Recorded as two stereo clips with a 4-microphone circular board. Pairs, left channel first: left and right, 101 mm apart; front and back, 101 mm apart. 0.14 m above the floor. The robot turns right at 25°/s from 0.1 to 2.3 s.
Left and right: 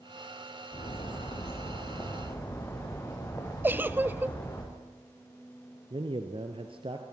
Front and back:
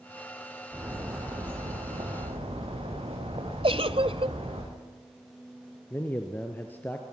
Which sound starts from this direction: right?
A man speaking, at 5.9 s.